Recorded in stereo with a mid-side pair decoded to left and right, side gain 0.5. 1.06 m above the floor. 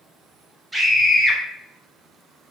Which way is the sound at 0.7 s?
10° right.